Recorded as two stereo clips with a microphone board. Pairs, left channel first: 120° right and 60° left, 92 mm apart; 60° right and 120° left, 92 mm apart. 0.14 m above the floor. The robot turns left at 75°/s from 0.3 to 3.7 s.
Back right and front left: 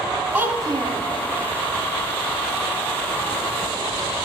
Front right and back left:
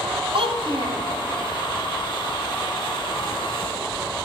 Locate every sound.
0.3 s a child speaking: 135° left, 2.5 m; by 1.0 s 85° left, 2.5 m